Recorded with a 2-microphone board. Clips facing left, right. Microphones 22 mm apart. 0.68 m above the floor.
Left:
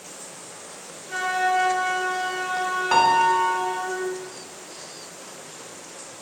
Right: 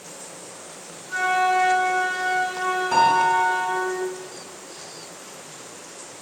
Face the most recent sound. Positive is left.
turn(degrees=45)  # may be behind; listen again after turning